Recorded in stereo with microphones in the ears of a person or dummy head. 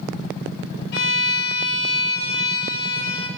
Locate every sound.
0.9 s a violin: 65° left (ahead or behind), 0.9 m